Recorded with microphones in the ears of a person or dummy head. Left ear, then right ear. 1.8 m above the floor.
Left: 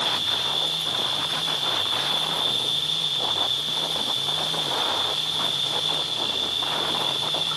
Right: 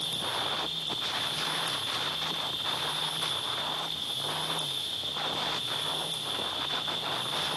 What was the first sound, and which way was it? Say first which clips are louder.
An insect: left 8 dB; 40° left (ahead or behind).